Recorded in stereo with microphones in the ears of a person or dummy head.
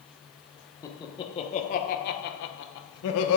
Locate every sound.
0.8 s laughter: 10° left (ahead or behind), 1.2 m; by 3.4 s 80° left, 1.2 m